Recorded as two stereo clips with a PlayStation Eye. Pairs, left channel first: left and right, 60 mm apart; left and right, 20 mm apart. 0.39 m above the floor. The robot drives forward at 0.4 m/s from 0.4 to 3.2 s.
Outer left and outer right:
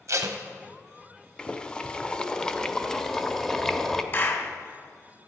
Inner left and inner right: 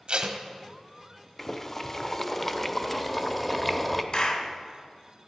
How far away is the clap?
About 1.6 m.